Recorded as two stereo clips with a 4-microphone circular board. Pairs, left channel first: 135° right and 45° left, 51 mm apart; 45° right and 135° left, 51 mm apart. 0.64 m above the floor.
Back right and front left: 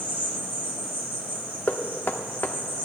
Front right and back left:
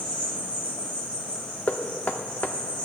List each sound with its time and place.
0.0 s an insect: 10° left, 5 m
1.7 s knocking: 90° right, 0.7 m